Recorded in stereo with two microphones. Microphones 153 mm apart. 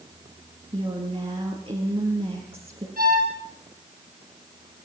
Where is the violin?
70° right (ahead or behind), 7.5 m.